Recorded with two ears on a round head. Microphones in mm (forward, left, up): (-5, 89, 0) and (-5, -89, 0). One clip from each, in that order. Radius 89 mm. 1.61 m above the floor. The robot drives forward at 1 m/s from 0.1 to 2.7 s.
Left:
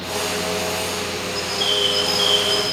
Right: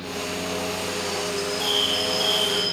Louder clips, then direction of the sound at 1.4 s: Left 4 dB; 60° left (ahead or behind).